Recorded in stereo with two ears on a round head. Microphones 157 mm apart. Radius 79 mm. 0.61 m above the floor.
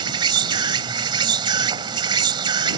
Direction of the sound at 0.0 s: 25° right (ahead or behind).